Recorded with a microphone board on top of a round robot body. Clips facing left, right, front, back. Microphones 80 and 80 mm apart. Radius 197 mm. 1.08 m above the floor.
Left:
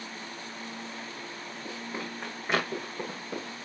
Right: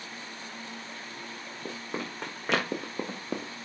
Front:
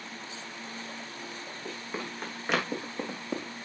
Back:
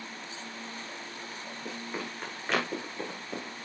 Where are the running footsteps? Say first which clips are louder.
Right 2 dB, even; 90° right, 5.5 m; by 3.5 s 60° right, 3.5 m.